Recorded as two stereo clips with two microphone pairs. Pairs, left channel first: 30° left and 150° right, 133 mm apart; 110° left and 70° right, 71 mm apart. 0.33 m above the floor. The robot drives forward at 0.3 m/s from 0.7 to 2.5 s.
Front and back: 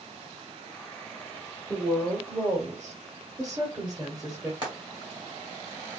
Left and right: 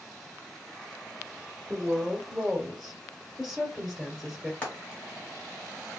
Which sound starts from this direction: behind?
Frying, at 4.6 s.